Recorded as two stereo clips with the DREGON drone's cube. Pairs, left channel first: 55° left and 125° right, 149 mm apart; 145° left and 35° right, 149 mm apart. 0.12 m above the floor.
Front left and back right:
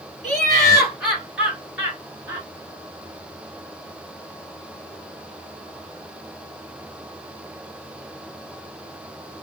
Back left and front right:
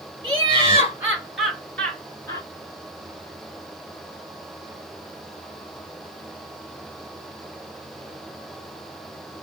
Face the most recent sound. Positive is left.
turn(degrees=180)